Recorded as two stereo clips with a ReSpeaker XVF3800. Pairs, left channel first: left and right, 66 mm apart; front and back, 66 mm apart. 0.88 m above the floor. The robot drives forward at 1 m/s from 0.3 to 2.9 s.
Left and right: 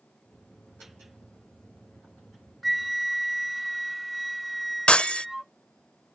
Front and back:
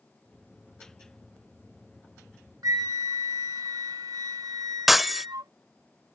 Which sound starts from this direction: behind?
A flute, at 2.6 s.